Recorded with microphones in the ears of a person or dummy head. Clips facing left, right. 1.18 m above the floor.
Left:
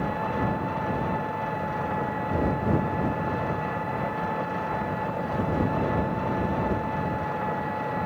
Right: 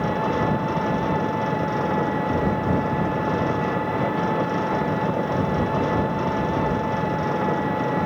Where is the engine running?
55° right (ahead or behind).